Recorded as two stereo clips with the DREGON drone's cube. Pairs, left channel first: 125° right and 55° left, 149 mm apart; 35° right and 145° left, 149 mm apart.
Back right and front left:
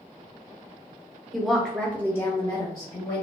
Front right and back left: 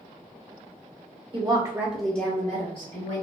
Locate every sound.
1.3 s a woman speaking: 145° left, 0.9 m; by 3.2 s 65° right, 1.3 m